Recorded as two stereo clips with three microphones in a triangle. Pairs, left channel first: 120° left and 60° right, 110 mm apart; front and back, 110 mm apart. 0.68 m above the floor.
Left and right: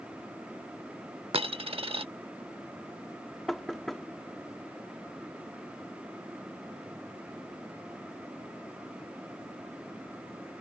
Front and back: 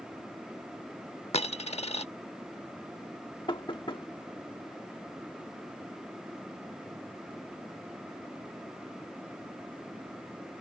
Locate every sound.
1.3 s a dropped coin: 25° right
3.5 s knocking: 30° left